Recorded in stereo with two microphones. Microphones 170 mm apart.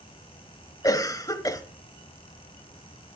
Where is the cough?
20° left (ahead or behind), 1.0 m.